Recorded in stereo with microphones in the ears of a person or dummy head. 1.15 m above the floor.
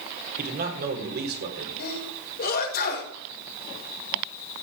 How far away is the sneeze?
About 5.5 m.